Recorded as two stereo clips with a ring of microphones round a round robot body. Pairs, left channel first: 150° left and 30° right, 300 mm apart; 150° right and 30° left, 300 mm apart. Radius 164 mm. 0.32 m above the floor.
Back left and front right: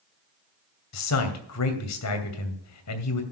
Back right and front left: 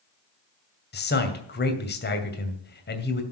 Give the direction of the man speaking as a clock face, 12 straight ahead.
7 o'clock.